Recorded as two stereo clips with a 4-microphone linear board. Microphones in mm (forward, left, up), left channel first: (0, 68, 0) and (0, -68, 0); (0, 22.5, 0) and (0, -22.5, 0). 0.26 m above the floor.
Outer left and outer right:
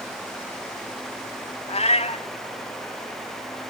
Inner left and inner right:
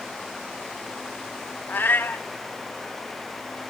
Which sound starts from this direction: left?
A cat meowing, at 1.7 s.